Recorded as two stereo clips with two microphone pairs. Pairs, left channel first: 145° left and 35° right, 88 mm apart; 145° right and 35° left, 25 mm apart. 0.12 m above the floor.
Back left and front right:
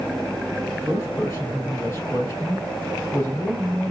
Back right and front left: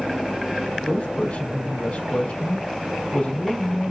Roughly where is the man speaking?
Behind right.